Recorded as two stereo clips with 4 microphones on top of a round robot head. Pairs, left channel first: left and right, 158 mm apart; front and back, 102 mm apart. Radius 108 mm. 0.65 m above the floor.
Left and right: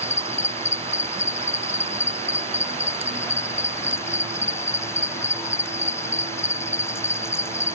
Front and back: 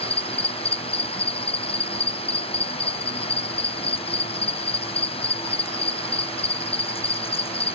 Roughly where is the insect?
Ahead.